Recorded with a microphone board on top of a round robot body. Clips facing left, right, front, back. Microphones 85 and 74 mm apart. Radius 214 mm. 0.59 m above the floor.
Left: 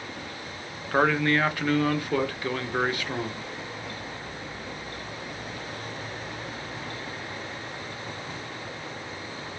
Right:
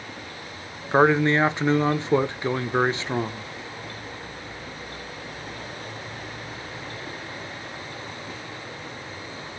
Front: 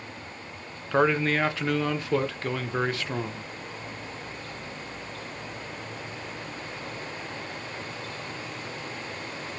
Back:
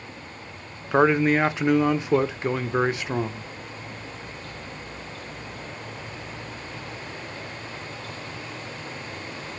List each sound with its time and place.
0.9 s a man speaking: 130° right, 0.7 m